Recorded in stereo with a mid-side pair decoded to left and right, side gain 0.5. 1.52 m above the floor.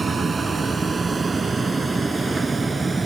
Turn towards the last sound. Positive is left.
turn(degrees=-25)